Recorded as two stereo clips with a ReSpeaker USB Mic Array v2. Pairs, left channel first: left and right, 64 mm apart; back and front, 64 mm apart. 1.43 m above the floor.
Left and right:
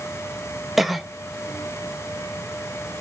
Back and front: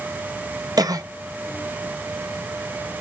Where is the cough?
5° right, 1.1 m.